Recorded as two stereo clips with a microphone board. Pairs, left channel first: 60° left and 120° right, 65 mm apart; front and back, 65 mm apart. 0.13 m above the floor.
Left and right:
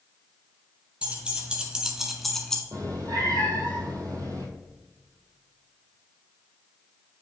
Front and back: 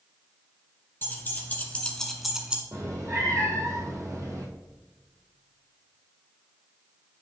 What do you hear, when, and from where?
1.0 s keys jangling: 50° right, 1.6 m; by 2.6 s 125° left, 0.9 m
2.7 s a cat meowing: 145° right, 1.6 m